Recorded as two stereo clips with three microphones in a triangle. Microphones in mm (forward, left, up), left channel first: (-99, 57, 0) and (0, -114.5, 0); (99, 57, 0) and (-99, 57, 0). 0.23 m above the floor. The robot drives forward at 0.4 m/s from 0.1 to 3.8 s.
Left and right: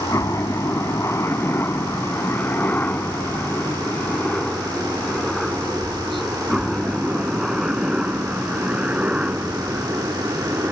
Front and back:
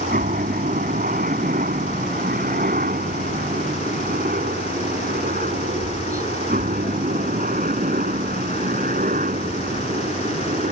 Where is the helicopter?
170° right; by 10.7 s 140° right.